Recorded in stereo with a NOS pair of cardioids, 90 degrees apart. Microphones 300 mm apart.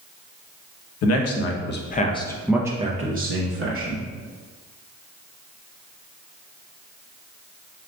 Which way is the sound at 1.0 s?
60° left.